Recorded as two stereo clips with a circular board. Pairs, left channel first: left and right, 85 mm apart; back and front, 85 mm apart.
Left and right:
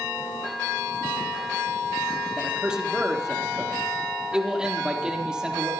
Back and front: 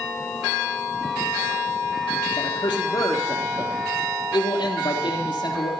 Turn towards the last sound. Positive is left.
turn(degrees=-170)